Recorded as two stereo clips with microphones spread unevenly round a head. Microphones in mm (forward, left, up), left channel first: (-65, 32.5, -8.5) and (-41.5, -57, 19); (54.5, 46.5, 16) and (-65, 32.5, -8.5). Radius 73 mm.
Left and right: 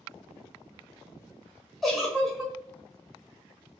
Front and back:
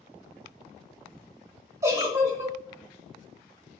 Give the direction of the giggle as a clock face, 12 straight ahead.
4 o'clock.